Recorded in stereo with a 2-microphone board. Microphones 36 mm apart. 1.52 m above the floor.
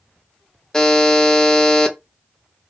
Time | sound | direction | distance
0.7 | a buzzer | 20° left (ahead or behind) | 0.7 m